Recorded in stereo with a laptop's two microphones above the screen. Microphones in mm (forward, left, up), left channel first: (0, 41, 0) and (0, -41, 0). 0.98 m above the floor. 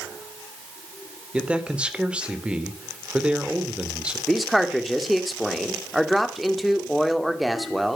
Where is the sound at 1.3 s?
15° right (ahead or behind), 2.5 m.